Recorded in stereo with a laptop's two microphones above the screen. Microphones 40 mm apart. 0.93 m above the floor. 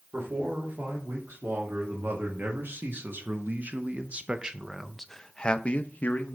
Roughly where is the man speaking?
Right.